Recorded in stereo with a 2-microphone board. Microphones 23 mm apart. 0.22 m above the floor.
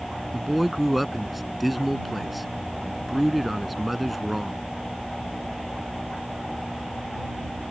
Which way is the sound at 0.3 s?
5° right (ahead or behind).